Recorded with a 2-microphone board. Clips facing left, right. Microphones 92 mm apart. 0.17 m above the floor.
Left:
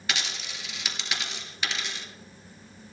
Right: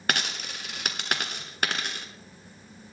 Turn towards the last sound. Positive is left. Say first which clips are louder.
# right 4 dB
turn(degrees=-50)  # may be behind; listen again after turning